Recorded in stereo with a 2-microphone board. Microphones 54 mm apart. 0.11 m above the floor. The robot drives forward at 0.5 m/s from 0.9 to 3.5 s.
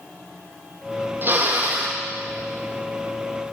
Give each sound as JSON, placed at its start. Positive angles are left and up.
{"t": 1.2, "sound": "a drill", "side_deg": -40, "distance_m": 2.5}